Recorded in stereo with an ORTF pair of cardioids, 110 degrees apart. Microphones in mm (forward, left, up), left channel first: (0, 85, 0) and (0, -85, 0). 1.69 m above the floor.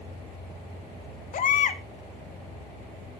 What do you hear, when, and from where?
1.3 s a baby crying: 50° left, 1.8 m